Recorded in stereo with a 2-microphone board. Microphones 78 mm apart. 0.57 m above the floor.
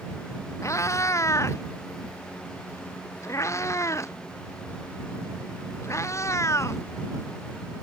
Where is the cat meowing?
40° left (ahead or behind).